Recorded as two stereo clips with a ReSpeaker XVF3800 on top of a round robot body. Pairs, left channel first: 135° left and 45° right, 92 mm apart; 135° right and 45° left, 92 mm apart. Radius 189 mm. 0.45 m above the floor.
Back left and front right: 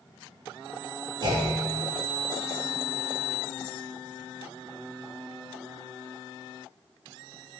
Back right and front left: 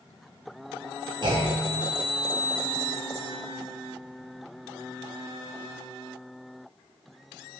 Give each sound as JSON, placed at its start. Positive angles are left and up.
{"t": 1.2, "sound": "a clunk", "azimuth_deg": 0, "distance_m": 2.0}